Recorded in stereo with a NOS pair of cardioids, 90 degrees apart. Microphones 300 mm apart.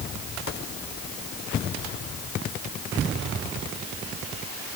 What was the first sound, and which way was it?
Only background noise.